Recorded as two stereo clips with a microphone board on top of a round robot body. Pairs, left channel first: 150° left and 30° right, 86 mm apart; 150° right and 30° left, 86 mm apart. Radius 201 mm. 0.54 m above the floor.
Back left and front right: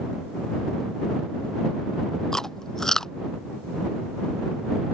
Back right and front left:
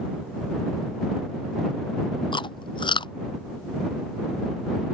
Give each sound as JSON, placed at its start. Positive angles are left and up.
{"t": 2.3, "sound": "chewing", "azimuth_deg": -125}